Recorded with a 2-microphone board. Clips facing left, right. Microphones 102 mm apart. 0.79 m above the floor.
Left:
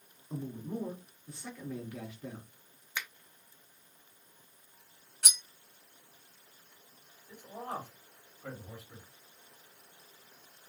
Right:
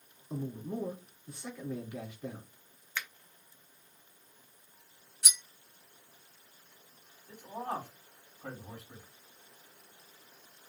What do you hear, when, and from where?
0.3 s a man speaking: 20° right (ahead or behind), 2.5 m
3.0 s a finger snap: 15° left (ahead or behind), 0.8 m
5.2 s cutlery clinking: 60° left (ahead or behind), 0.6 m
7.3 s a man speaking: 65° right (ahead or behind), 2 m